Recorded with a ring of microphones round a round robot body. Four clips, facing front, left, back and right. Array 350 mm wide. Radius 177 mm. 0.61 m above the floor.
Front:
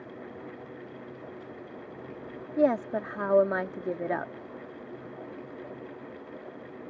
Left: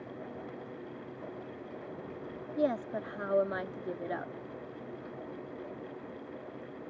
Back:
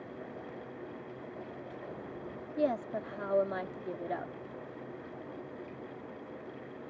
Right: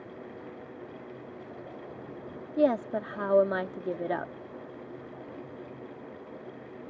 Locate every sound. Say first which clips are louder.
2.6 s a woman speaking: right 6 dB, front 7 dB; 35° right